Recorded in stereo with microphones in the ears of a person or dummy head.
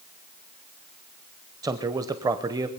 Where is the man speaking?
15° right (ahead or behind), 0.8 m.